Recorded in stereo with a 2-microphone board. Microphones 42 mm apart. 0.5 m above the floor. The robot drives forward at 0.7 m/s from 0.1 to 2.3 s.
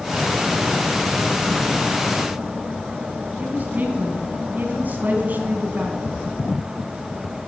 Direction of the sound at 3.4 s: 40° right (ahead or behind).